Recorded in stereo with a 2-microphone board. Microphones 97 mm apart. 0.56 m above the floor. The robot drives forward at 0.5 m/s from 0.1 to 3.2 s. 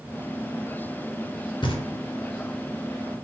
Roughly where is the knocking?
Left.